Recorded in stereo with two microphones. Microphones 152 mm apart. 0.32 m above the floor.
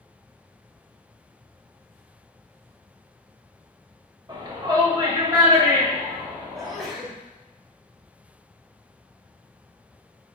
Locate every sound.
4.3 s a shout: 25° right (ahead or behind), 1.2 m; by 6.9 s 20° right (ahead or behind), 2.5 m
6.5 s a sneeze: centre (ahead or behind), 1.0 m